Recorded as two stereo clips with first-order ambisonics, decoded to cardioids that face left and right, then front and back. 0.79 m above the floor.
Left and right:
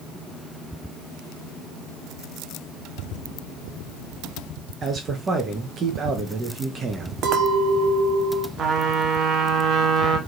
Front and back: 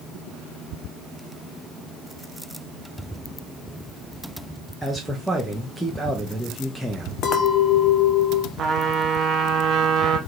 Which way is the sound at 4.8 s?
85° right.